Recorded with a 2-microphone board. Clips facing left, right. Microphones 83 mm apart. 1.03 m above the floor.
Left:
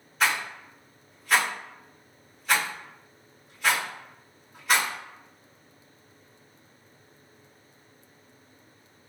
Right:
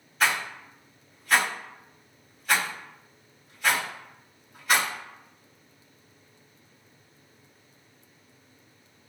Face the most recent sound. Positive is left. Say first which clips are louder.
# even
turn(degrees=0)  # may be behind; listen again after turning